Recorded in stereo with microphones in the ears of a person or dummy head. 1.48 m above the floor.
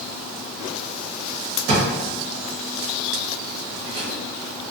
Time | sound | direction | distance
1.7 | a drawer | 55° right (ahead or behind) | 1.2 m